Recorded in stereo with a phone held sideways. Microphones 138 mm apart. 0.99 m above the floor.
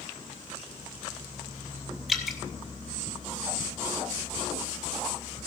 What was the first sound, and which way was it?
Dripping, 5° right (ahead or behind).